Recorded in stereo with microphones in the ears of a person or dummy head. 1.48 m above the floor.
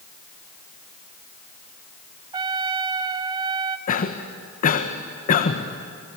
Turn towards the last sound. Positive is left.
turn(degrees=45)  # may be behind; listen again after turning